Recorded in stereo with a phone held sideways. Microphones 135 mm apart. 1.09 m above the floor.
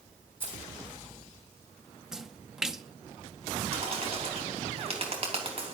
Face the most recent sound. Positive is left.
turn(degrees=-45)  # may be behind; listen again after turning